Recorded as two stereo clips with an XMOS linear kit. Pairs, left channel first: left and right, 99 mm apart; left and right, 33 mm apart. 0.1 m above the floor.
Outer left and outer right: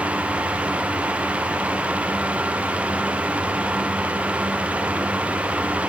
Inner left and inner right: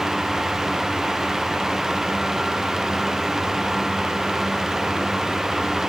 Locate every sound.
Only background noise.